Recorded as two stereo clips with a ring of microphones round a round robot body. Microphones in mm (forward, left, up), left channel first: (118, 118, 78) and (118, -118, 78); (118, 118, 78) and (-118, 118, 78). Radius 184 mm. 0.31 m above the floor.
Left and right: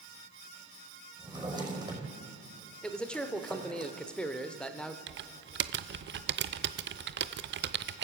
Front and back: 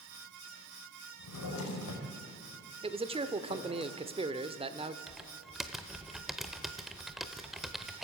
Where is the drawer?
15° right, 5 m.